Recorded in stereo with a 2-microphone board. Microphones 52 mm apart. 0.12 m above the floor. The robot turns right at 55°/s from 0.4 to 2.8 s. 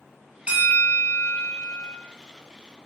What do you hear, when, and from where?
0.5 s a bell: 150° right, 0.9 m; by 1.9 s 70° right, 0.9 m